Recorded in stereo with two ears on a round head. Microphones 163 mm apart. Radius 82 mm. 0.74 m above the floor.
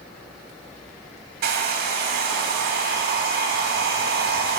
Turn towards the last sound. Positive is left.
turn(degrees=-55)  # may be behind; listen again after turning